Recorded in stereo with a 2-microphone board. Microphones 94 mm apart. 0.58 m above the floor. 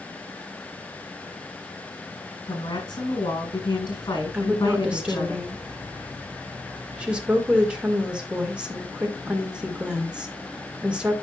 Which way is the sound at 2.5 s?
55° left (ahead or behind).